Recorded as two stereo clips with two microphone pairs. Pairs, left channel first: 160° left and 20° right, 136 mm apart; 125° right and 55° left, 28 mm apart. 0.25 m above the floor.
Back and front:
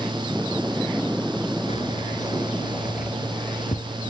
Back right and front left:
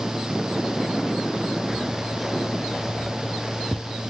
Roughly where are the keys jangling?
Behind left.